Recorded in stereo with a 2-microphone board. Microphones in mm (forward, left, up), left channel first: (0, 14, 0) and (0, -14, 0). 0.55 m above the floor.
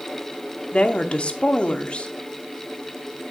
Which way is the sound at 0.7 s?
45° left (ahead or behind).